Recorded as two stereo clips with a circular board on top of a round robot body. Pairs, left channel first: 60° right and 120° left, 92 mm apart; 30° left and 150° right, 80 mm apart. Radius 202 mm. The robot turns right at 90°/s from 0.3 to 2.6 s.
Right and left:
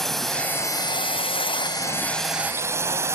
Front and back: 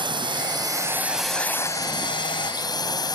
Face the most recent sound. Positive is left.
turn(degrees=60)